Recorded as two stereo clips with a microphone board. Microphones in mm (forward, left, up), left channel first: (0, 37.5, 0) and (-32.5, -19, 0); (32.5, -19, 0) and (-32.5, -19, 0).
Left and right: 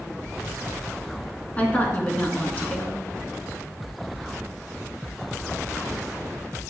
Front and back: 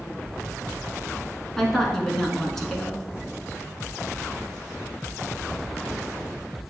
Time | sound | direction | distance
1.6 | a woman speaking | 80° left | 1.1 m